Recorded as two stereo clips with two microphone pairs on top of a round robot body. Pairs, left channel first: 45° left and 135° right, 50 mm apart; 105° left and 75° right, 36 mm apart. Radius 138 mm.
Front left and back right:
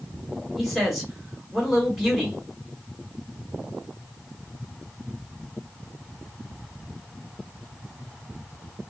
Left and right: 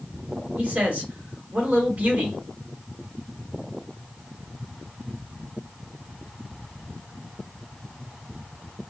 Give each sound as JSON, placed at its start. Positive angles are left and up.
{"t": 0.6, "sound": "a man speaking", "azimuth_deg": -50, "distance_m": 1.7}